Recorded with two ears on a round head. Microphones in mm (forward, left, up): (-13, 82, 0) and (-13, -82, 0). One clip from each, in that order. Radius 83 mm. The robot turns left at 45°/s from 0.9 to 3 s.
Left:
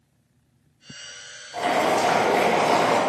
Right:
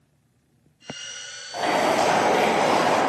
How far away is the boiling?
About 0.9 m.